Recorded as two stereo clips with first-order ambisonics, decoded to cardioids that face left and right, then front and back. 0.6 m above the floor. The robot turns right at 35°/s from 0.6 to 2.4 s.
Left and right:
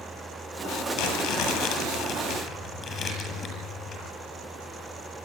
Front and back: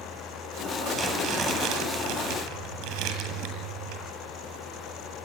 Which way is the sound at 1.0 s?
100° left.